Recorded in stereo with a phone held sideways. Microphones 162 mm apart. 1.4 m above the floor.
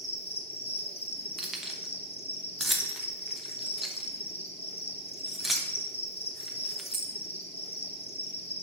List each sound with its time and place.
0.0 s an insect: 40° left (ahead or behind), 1.1 m
1.4 s keys jangling: centre (ahead or behind), 0.9 m